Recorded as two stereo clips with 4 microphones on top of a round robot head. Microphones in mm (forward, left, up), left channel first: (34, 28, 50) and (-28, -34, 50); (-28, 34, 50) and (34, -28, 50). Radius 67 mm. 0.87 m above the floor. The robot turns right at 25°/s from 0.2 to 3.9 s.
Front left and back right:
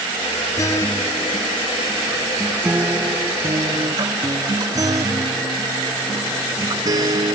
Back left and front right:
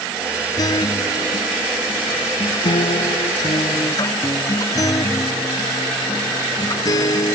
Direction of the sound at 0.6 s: 100° left.